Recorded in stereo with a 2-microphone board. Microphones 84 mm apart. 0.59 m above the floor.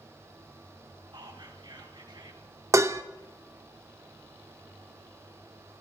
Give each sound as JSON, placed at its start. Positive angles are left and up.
{"t": 1.1, "sound": "whispering", "side_deg": -65, "distance_m": 3.0}
{"t": 2.7, "sound": "dishes clattering", "side_deg": -35, "distance_m": 0.7}